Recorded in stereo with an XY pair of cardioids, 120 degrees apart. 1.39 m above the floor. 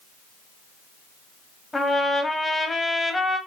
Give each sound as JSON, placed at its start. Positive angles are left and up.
{"t": 1.7, "sound": "a trumpet", "azimuth_deg": 20, "distance_m": 0.7}